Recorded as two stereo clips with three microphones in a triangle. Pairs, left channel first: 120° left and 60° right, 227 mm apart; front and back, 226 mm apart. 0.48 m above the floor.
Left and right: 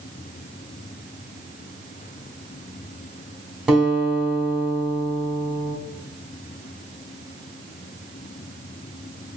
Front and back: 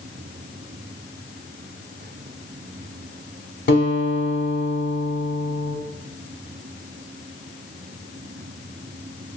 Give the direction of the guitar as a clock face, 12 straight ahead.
11 o'clock.